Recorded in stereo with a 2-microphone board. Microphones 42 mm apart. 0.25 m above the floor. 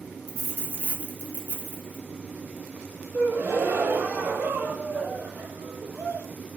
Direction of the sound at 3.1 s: 45° right (ahead or behind).